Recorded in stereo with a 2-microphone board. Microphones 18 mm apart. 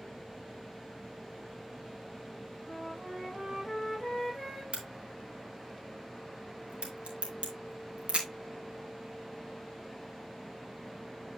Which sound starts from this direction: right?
A crack, at 4.7 s.